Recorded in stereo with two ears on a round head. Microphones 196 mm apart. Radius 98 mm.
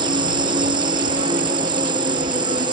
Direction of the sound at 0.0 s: 20° right (ahead or behind).